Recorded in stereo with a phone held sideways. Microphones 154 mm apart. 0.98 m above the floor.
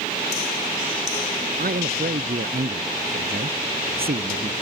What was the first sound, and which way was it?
A man speaking, 75° right (ahead or behind).